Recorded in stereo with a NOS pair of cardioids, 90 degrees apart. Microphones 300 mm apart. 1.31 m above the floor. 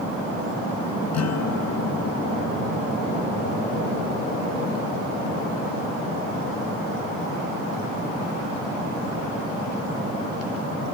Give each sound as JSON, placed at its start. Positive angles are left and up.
{"t": 1.1, "sound": "a guitar", "azimuth_deg": 55}